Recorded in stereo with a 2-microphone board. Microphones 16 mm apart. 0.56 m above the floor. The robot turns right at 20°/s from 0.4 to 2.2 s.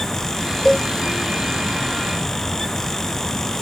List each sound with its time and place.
0.7 s a cowbell: 15° left (ahead or behind), 8 m; by 0.9 s 20° left (ahead or behind), 8 m